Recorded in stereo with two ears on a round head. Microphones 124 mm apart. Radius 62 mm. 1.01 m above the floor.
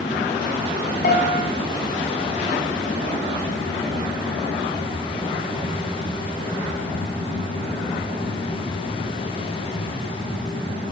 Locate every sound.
1.0 s a piano: 65° left (ahead or behind), 5.5 m